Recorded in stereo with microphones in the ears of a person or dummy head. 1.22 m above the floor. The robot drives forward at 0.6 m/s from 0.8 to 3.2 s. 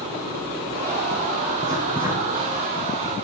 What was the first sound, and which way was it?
Writing, 25° right (ahead or behind).